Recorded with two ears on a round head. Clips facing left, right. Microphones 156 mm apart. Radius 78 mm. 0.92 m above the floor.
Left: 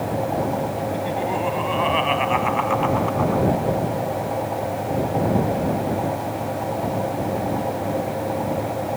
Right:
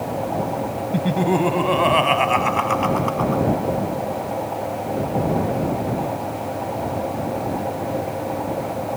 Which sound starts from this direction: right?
Laughter, at 0.9 s.